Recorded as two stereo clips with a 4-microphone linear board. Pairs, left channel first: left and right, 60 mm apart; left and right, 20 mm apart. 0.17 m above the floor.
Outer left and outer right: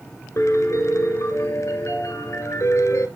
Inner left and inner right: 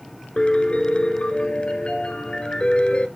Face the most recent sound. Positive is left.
turn(degrees=55)  # may be behind; listen again after turning